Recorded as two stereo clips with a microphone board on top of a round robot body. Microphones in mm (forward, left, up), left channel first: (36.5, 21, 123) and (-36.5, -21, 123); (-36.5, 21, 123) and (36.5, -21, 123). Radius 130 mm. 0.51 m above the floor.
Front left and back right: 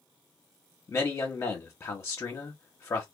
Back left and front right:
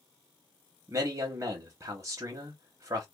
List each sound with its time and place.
0.9 s a man speaking: 5° right, 0.9 m